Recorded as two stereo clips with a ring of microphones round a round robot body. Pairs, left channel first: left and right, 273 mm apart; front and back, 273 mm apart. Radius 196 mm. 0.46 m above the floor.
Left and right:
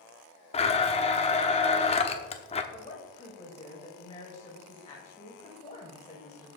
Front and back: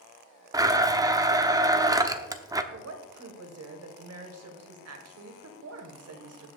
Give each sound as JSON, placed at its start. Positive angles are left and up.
{"t": 0.5, "sound": "a blender", "azimuth_deg": 120, "distance_m": 1.0}
{"t": 2.7, "sound": "a woman speaking", "azimuth_deg": 160, "distance_m": 2.5}